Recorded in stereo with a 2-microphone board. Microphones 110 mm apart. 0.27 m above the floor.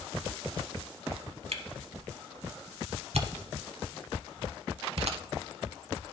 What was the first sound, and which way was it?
A camera shutter, 70° right (ahead or behind).